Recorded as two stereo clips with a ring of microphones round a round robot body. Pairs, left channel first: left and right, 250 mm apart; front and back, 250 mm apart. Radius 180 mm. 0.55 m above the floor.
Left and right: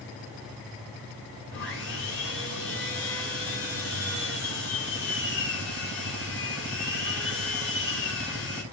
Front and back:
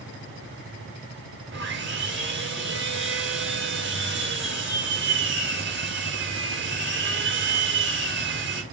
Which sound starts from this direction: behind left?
Sawing, at 1.5 s.